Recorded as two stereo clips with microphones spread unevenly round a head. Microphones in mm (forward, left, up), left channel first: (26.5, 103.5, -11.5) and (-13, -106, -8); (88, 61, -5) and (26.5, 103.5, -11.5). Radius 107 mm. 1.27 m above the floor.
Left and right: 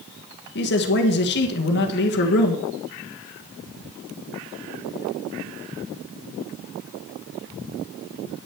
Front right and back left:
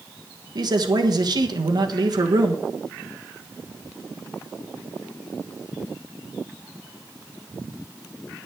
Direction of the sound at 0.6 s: 120° left.